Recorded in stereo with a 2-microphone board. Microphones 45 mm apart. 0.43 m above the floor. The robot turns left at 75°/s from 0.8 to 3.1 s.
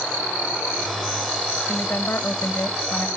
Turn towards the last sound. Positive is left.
turn(degrees=40)